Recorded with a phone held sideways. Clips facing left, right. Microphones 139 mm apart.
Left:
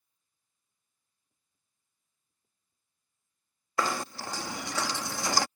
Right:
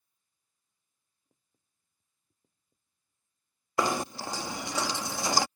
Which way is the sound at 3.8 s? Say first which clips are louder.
Right 2 dB; 20° right (ahead or behind).